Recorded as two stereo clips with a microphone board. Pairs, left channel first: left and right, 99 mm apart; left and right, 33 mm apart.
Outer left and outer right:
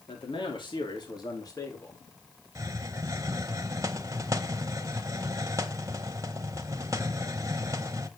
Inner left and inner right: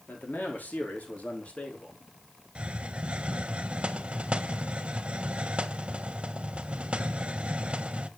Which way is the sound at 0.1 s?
60° left (ahead or behind).